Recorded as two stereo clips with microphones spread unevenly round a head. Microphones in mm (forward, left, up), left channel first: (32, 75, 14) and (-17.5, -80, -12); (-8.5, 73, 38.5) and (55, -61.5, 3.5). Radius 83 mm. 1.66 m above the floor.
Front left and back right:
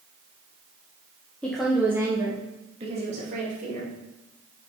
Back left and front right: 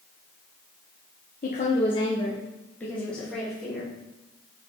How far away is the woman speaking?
About 0.9 m.